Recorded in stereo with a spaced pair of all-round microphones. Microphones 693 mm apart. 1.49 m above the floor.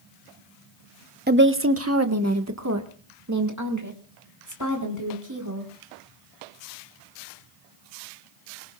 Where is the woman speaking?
15° right (ahead or behind), 0.7 m; by 5.7 s 25° right (ahead or behind), 4.5 m.